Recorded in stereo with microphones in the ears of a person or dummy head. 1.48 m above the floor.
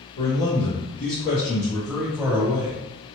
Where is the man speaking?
70° left (ahead or behind), 1.1 m; by 2.8 s 30° right (ahead or behind), 0.9 m.